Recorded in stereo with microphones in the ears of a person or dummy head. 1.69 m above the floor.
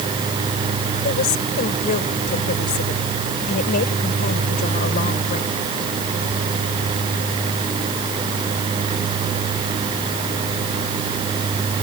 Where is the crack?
I don't hear a crack.